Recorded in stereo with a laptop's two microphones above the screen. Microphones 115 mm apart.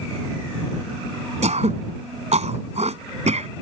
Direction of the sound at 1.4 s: 75° right (ahead or behind).